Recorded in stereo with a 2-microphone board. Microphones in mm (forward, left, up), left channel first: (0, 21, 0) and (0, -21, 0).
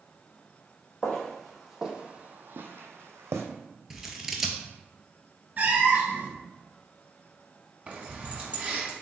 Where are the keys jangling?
25° right (ahead or behind), 1.0 m.